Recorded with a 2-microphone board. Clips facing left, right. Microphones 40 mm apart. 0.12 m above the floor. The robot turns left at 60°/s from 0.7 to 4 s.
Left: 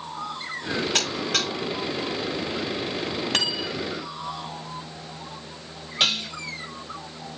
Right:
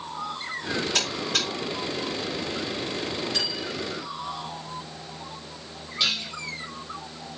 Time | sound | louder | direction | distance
0.9 | a buzzer | left 1 dB | 45° left (ahead or behind) | 7.5 m
3.3 | cutlery clinking | left 4 dB | 70° left (ahead or behind) | 2 m
6.0 | dishes clattering | left 3 dB | 45° left (ahead or behind) | 3 m